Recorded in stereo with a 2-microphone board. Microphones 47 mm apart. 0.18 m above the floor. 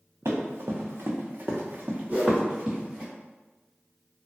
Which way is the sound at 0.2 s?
85° right.